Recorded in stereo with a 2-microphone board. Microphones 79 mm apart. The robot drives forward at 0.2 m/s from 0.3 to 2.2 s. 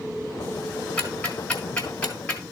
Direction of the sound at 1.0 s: 15° left (ahead or behind).